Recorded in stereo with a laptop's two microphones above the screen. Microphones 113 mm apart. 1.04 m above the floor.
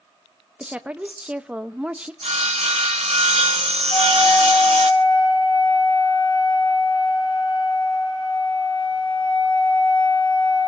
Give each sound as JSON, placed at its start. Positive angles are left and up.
{"t": 0.6, "sound": "a woman speaking", "side_deg": -10, "distance_m": 1.0}
{"t": 2.2, "sound": "sawing", "side_deg": -80, "distance_m": 1.4}
{"t": 3.9, "sound": "a flute", "side_deg": 50, "distance_m": 9.0}